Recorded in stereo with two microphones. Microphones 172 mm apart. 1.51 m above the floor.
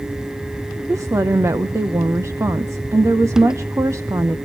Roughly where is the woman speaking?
Centre.